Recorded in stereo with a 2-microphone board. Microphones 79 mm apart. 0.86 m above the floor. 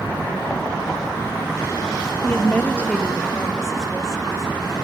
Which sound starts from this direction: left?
A woman speaking, at 2.2 s.